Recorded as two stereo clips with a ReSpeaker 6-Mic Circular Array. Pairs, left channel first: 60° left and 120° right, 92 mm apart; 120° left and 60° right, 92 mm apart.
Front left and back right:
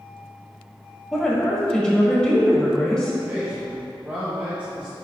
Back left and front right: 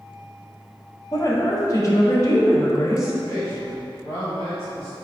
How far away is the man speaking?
About 1.3 m.